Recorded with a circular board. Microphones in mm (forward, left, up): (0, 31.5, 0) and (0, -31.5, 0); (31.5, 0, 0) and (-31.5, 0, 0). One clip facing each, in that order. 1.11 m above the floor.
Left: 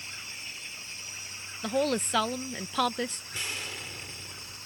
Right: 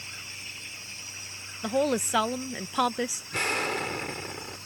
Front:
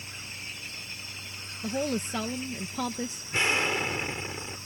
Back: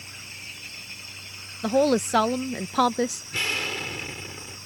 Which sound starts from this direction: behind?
A woman speaking, at 1.6 s.